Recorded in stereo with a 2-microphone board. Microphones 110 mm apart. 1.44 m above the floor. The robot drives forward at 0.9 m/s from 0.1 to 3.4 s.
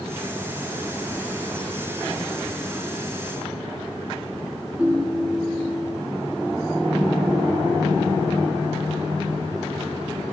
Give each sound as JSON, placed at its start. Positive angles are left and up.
{"t": 4.8, "sound": "a ringtone", "side_deg": -15, "distance_m": 0.9}